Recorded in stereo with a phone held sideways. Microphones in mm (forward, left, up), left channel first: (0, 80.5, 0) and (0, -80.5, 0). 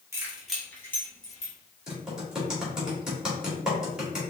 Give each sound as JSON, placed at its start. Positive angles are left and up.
{"t": 0.1, "sound": "keys jangling", "side_deg": -20, "distance_m": 1.2}
{"t": 1.9, "sound": "typing on a keyboard", "side_deg": -5, "distance_m": 1.9}